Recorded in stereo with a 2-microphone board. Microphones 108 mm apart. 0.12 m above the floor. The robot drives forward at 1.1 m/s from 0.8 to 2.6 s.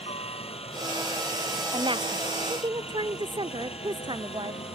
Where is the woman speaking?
50° right (ahead or behind); by 4.6 s 45° right (ahead or behind).